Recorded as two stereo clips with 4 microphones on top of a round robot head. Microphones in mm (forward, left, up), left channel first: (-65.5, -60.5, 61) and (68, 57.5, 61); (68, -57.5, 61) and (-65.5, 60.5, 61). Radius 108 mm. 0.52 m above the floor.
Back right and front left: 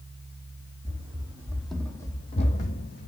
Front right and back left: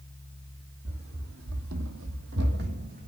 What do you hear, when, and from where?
0.8 s running footsteps: 100° left, 1.6 m; by 3.1 s 175° right, 1.7 m